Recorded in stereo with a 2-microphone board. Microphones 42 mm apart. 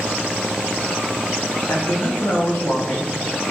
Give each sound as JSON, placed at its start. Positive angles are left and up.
{"t": 1.7, "sound": "a man speaking", "side_deg": 85, "distance_m": 3.0}